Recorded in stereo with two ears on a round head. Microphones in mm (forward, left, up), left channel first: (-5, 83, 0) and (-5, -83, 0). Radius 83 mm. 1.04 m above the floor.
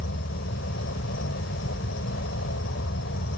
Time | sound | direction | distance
0.0 | an insect | 70° left (ahead or behind) | ?